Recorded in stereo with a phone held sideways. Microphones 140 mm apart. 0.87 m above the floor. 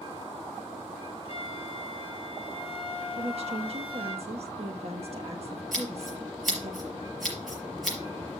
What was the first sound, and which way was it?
A flute, 40° left (ahead or behind).